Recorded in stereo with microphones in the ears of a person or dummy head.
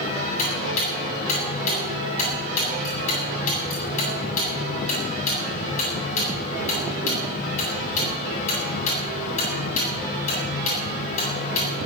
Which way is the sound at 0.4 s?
40° left (ahead or behind).